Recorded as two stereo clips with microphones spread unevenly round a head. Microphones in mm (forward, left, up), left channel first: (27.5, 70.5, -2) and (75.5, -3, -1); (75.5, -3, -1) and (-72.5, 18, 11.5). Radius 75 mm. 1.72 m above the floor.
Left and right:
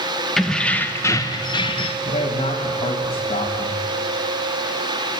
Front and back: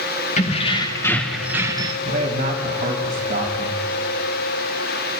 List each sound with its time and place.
0.4 s keys jangling: 35° left, 1.7 m; by 1.9 s 115° left, 1.6 m
2.0 s a man speaking: 135° left, 3 m